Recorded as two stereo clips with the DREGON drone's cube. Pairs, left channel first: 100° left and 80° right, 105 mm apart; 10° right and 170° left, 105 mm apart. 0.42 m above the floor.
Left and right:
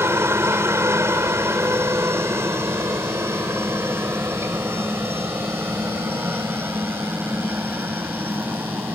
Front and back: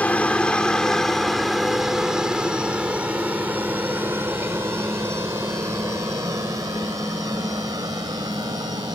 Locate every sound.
0.0 s a helicopter: 70° right; by 8.9 s 150° right